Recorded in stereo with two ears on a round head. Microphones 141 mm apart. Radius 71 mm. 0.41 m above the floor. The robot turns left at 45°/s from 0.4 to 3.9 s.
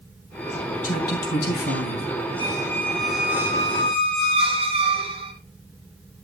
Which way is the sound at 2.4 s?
30° left.